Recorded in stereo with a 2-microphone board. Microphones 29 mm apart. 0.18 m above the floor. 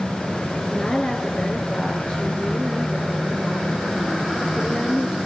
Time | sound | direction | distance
0.7 | a woman speaking | 35° left (ahead or behind) | 3 m